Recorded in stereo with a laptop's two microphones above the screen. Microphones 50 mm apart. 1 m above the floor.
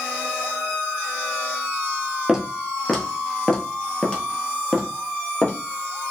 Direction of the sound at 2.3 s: 10° right (ahead or behind).